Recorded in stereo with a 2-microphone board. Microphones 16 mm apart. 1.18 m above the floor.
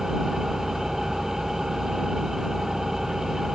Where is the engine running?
25° right (ahead or behind).